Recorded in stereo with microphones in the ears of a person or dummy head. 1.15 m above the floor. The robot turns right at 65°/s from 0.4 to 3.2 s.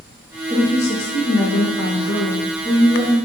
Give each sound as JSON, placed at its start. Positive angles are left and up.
{"t": 0.5, "sound": "a woman speaking", "azimuth_deg": 15, "distance_m": 1.7}